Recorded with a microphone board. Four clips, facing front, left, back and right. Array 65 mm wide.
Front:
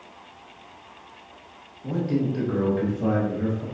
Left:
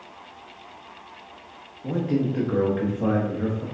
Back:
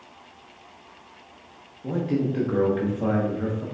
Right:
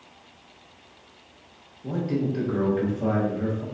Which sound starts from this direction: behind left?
A man speaking, at 1.8 s.